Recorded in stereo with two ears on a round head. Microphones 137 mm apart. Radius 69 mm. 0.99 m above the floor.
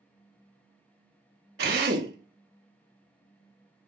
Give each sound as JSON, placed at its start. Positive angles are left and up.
{"t": 1.6, "sound": "a drill", "side_deg": -75, "distance_m": 0.8}